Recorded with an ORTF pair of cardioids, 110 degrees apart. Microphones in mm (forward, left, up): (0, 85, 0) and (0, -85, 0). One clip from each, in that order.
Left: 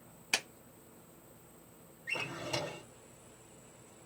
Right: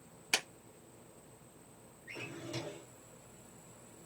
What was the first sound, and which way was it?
A clap, 5° right.